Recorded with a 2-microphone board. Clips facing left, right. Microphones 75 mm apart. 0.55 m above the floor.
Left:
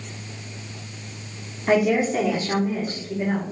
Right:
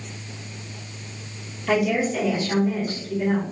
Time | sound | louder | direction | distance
1.7 | a woman speaking | left 2 dB | 40° left (ahead or behind) | 1.2 m